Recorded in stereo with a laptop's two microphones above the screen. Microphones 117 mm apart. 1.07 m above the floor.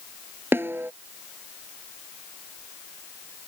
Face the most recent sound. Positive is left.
turn(degrees=-20)  # may be behind; listen again after turning